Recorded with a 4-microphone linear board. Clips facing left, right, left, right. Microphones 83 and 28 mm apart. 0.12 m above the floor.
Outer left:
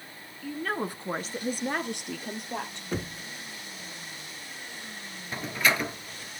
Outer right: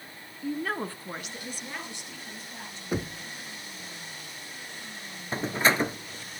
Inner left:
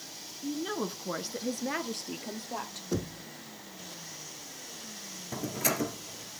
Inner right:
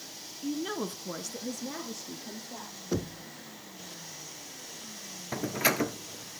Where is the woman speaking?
20° right (ahead or behind), 1.1 m; by 2.8 s 70° left (ahead or behind), 3 m.